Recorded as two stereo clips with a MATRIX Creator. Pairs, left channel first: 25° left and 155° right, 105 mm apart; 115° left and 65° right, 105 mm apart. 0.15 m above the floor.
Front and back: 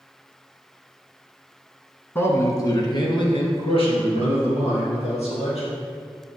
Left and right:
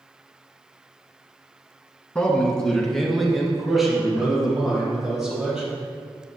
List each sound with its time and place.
2.1 s a man speaking: 55° left, 1.3 m; by 5.7 s 15° left, 4 m